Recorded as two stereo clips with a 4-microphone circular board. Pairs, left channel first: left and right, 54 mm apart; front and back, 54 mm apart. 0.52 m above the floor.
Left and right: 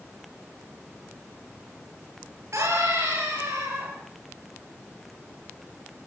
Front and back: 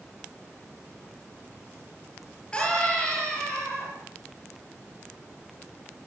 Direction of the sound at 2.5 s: 70° right.